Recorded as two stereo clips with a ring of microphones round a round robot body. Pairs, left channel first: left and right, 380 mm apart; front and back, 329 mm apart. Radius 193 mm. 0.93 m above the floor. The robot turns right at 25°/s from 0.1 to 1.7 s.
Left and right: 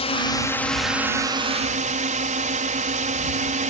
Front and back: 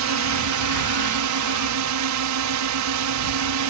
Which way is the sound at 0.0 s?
160° left.